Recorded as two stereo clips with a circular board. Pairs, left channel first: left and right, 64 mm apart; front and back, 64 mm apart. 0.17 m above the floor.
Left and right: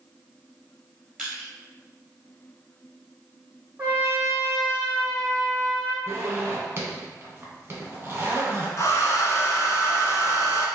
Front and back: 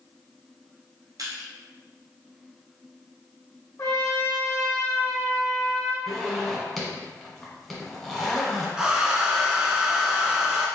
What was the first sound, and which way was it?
Crushing, straight behind.